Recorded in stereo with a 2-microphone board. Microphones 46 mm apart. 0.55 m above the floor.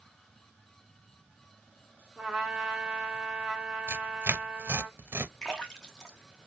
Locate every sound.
2.2 s a trumpet: 10° right (ahead or behind), 1.2 m
3.9 s tearing paper: 55° right (ahead or behind), 0.6 m
5.4 s a splash: 10° left (ahead or behind), 0.9 m